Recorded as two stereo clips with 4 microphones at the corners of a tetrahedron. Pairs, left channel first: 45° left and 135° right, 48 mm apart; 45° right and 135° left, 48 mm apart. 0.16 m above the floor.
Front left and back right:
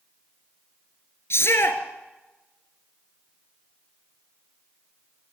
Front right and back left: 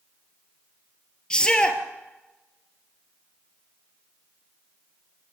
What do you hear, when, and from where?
1.3 s a shout: 25° left, 2.5 m